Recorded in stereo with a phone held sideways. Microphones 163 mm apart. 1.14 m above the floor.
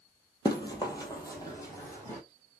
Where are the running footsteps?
25° left (ahead or behind), 1.2 m; by 2.2 s 20° left (ahead or behind), 2.0 m.